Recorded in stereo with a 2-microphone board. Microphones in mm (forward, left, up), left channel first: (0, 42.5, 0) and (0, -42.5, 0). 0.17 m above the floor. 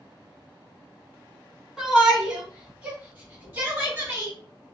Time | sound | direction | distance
1.8 | a shout | 5° right (ahead or behind) | 1.6 m